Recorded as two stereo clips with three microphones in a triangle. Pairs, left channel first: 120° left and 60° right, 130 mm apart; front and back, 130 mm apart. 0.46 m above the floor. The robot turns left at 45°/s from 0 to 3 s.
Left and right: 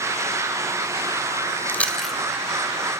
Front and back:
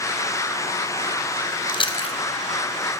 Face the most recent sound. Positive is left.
turn(degrees=-10)